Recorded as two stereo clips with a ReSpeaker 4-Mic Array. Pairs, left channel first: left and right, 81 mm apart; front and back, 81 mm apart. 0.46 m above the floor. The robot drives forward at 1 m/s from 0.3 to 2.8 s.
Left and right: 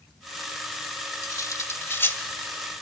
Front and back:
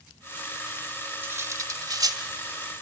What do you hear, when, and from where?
1.2 s cutlery clinking: 120° left, 1.0 m; by 2.2 s 150° left, 1.7 m